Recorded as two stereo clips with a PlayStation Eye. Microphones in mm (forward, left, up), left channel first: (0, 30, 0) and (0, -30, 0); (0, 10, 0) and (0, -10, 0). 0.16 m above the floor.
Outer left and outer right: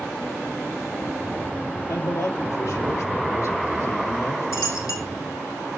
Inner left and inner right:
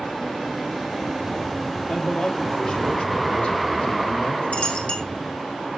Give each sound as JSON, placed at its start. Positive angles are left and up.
{"t": 1.9, "sound": "a man speaking", "side_deg": 65, "distance_m": 6.5}
{"t": 4.5, "sound": "a dropped coin", "side_deg": 70, "distance_m": 2.5}